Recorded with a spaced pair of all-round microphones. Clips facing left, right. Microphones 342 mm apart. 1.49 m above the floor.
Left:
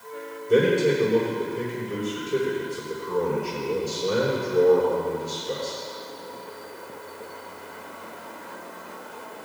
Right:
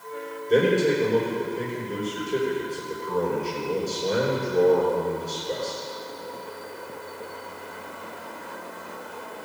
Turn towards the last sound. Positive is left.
turn(degrees=15)  # may be behind; listen again after turning